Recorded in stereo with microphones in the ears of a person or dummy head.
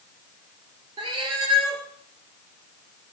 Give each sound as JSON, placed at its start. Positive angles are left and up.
{"t": 1.0, "sound": "a cat meowing", "side_deg": -30, "distance_m": 4.0}